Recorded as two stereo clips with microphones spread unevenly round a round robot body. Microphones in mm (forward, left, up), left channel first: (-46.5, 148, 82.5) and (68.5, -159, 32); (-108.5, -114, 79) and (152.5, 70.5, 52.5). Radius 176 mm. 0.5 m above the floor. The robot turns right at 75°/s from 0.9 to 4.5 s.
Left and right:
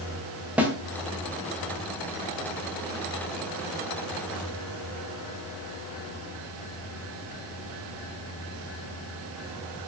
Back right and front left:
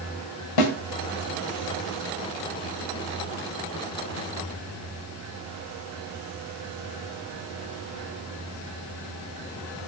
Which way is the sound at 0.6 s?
155° right.